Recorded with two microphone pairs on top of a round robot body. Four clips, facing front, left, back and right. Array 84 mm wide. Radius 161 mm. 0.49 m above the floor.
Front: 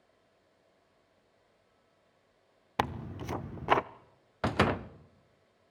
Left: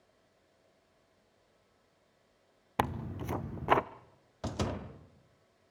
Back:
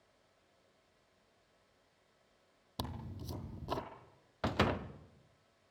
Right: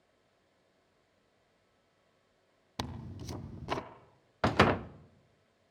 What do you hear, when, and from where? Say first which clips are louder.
2.8 s tearing paper: left 9 dB, front 12 dB; 35° left, 0.6 m
4.4 s a door slam: right 10 dB, front 5 dB; 70° right, 0.8 m